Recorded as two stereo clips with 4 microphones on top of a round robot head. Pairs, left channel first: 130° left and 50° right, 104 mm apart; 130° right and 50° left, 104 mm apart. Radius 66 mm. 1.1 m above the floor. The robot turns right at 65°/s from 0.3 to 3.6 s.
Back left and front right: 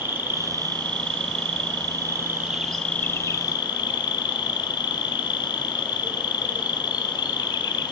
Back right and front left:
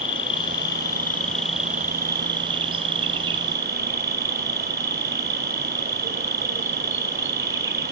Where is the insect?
115° right, 0.8 m; by 7.9 s 100° left, 0.8 m.